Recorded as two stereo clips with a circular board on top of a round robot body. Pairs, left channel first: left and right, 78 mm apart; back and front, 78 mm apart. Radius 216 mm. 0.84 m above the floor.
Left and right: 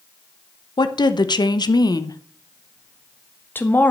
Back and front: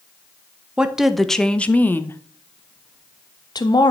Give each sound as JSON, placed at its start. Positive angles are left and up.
{"t": 0.8, "sound": "a woman speaking", "azimuth_deg": 80, "distance_m": 1.5}